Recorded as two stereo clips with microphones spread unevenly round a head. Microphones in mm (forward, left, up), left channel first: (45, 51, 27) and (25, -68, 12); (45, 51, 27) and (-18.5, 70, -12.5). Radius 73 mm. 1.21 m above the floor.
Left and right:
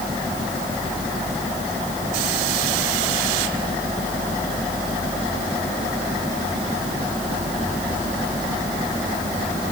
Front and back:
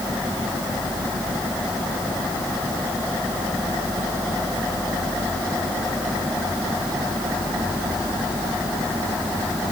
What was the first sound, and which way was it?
Only background noise.